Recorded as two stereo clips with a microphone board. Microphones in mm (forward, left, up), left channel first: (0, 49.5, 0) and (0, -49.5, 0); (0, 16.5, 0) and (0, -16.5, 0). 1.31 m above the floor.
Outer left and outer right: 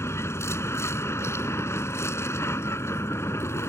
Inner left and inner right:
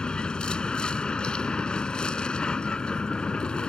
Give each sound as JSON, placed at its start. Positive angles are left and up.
{"t": 0.0, "sound": "a vehicle", "side_deg": 25}